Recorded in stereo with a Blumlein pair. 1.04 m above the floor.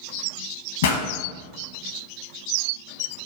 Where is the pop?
60° left, 0.8 m.